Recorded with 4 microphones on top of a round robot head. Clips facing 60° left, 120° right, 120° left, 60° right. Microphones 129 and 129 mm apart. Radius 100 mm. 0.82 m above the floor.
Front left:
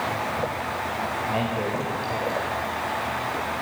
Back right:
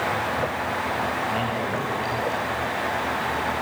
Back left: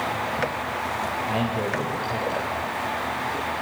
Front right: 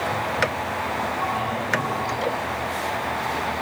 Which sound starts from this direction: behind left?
A man speaking, at 1.3 s.